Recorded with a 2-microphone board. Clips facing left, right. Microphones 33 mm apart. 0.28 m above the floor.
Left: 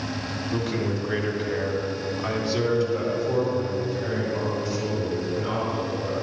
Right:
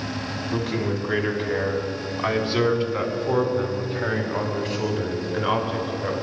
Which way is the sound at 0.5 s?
10° right (ahead or behind).